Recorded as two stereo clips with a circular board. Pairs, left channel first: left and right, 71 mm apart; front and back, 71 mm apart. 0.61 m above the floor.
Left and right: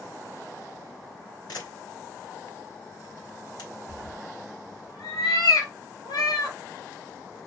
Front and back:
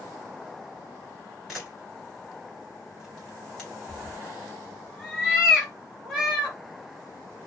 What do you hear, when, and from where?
1.5 s a camera shutter: 95° left, 2.0 m
3.9 s a cat meowing: 95° left, 1.9 m